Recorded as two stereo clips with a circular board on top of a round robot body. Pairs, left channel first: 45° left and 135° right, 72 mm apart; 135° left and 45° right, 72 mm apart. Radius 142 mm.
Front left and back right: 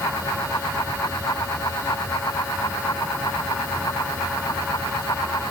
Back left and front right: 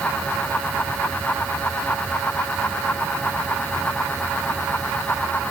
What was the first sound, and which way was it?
Only background noise.